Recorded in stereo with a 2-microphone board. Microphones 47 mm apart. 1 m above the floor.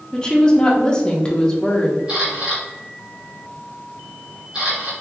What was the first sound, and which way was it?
A woman speaking, 20° left (ahead or behind).